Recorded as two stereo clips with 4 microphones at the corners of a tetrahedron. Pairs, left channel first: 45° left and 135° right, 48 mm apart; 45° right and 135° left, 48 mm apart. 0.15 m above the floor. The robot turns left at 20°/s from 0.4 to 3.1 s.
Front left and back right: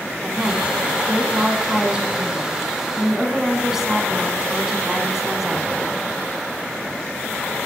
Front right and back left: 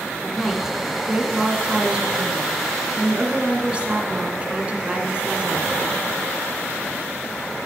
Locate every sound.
0.2 s a woman speaking: 155° right, 1.6 m; by 5.7 s 150° left, 1.6 m